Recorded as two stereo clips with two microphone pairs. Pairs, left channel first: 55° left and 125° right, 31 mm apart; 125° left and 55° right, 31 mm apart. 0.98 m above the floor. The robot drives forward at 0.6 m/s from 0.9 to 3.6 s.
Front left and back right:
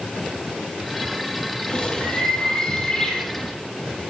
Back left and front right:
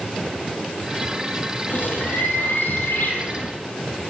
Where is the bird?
115° left, 4.5 m; by 3.5 s 125° left, 5 m.